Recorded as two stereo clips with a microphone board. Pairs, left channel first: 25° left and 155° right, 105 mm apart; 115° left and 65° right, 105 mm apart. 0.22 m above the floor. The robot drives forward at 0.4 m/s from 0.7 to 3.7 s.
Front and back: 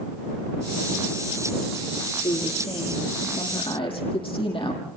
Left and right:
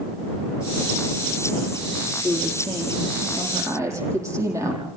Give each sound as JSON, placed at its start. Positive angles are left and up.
{"t": 2.2, "sound": "a woman speaking", "azimuth_deg": -5, "distance_m": 9.0}